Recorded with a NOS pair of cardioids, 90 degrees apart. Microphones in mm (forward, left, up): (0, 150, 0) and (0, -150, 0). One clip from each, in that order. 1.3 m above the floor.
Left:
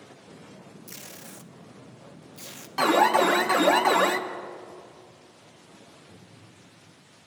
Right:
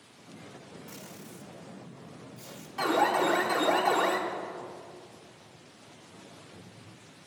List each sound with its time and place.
0.9 s tape being pulled: 60° left, 0.8 m
2.8 s an alarm: 60° left, 0.9 m